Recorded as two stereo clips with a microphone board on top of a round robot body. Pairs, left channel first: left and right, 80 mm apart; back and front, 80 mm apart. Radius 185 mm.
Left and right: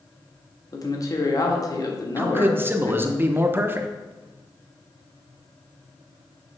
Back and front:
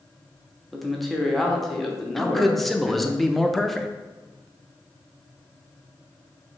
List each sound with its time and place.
0.7 s a man speaking: 90° left, 1.5 m
2.2 s a man speaking: 95° right, 0.9 m